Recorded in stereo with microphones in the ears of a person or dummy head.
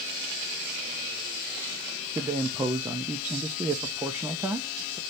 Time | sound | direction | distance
2.1 | a man speaking | 15° right (ahead or behind) | 0.5 m